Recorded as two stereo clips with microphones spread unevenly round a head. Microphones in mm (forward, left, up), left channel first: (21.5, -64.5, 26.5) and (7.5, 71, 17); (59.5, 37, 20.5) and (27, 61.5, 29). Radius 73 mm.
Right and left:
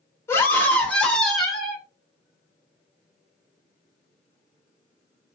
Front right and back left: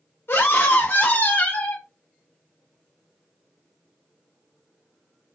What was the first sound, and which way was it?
A scream, 10° right.